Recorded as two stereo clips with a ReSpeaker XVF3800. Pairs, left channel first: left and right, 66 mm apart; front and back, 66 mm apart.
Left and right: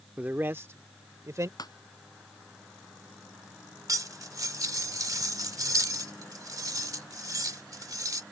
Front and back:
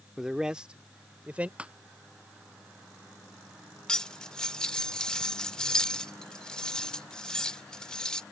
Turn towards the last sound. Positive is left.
turn(degrees=-75)